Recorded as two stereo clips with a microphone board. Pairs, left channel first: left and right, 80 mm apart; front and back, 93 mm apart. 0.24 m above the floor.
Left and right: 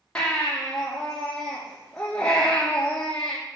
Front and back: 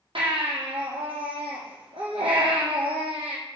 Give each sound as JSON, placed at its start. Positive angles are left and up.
{"t": 0.1, "sound": "a baby crying", "azimuth_deg": 170, "distance_m": 3.0}